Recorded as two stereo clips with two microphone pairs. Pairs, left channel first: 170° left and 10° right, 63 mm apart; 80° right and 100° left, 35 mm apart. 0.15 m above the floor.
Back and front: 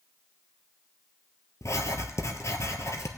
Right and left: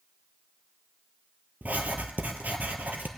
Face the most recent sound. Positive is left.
turn(degrees=135)